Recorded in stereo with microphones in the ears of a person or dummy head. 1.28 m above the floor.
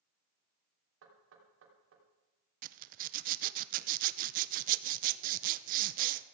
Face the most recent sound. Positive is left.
turn(degrees=-50)  # may be behind; listen again after turning